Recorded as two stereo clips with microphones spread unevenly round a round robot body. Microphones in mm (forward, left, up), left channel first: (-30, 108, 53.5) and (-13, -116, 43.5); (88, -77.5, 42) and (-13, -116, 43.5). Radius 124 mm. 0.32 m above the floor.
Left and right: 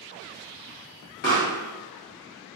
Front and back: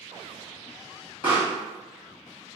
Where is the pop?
65° left, 1.7 m.